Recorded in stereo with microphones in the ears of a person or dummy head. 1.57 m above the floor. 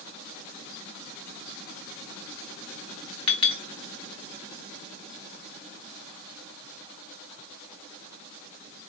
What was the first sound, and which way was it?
A clink, 25° left (ahead or behind).